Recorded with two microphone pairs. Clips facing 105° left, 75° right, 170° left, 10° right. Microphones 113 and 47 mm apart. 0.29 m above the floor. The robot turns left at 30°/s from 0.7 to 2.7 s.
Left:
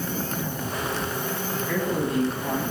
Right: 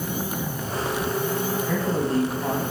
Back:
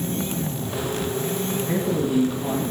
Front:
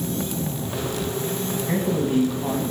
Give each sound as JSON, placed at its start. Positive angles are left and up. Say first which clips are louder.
{"t": 1.7, "sound": "a man speaking", "louder": "even, front 1 dB", "azimuth_deg": -30, "distance_m": 2.0}